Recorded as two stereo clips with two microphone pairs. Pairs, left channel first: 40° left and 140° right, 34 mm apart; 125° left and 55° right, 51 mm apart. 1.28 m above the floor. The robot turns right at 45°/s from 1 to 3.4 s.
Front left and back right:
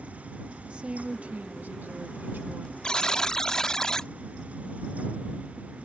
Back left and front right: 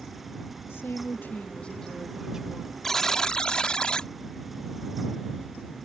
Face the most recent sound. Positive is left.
turn(degrees=75)